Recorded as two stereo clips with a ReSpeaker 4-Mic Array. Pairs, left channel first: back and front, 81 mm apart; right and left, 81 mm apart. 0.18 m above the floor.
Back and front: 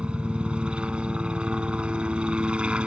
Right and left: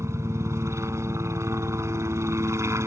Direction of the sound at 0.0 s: 70° left.